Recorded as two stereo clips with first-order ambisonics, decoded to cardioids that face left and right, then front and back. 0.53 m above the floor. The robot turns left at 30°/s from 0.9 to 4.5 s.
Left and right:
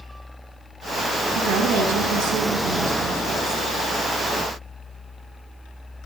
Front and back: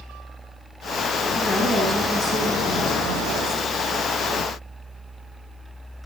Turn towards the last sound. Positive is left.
turn(degrees=180)